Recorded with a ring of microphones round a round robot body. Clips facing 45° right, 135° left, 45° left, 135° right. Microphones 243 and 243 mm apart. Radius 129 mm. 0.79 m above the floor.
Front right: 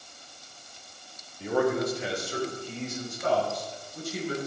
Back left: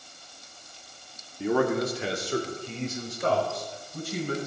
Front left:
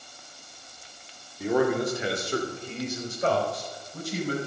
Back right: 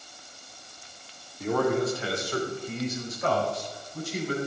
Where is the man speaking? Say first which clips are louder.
Back left 1 dB, front left 1 dB; 130° left, 2.5 m; by 4.4 s 95° left, 5 m.